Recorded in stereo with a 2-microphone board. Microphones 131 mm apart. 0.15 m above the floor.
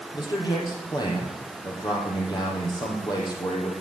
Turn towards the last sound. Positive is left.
turn(degrees=35)  # may be behind; listen again after turning